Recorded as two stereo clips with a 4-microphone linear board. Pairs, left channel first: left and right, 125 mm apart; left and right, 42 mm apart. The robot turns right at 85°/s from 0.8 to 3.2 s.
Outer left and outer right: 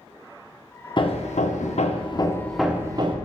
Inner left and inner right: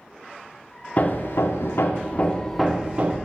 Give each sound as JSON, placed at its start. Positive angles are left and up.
{"t": 1.0, "sound": "hammering", "azimuth_deg": 40, "distance_m": 0.6}